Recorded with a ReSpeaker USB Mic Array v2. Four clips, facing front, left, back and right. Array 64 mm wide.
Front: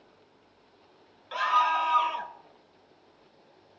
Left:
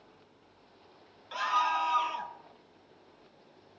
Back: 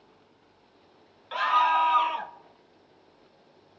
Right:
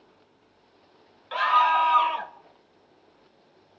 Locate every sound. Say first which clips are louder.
1.3 s a scream: right 8 dB, back 2 dB; 110° right, 0.7 m